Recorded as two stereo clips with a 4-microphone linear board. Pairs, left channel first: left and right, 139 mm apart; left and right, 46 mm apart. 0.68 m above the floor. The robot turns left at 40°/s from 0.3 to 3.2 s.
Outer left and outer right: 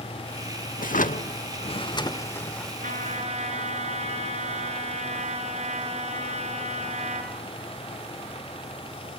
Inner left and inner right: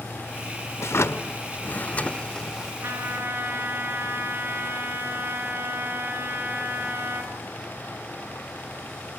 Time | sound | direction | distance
0.8 | a drawer | 80° left | 1.0 m
2.8 | a trumpet | 70° right (ahead or behind) | 4.5 m